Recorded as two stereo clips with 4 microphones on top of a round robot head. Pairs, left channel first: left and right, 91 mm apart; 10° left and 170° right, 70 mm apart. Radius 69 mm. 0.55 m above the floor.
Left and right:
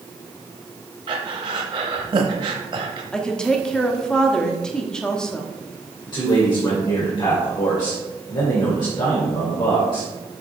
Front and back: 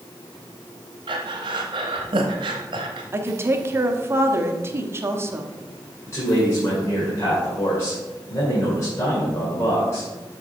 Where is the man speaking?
60° left, 2 m.